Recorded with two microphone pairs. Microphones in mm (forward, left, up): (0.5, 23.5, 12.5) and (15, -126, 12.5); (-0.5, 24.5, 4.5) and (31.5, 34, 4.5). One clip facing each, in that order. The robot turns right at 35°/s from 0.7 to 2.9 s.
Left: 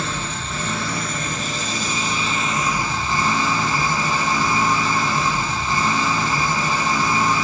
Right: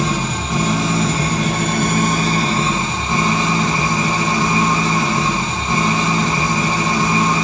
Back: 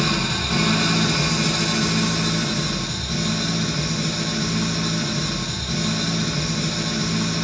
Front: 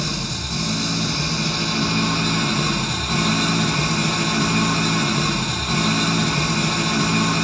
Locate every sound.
0.0 s an engine running: 90° right, 4 m; by 7.4 s 15° right, 4 m